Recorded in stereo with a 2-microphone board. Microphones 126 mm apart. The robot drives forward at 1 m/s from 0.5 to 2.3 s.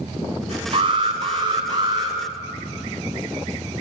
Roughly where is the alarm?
Right.